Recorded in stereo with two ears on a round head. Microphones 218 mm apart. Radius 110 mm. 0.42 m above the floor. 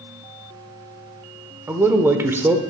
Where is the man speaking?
10° right (ahead or behind), 0.8 m.